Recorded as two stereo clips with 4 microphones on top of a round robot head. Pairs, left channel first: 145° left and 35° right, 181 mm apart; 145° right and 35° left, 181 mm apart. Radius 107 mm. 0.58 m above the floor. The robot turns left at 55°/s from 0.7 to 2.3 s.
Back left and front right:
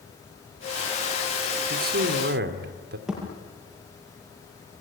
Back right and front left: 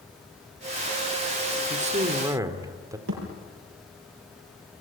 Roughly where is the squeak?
No squeak in this recording.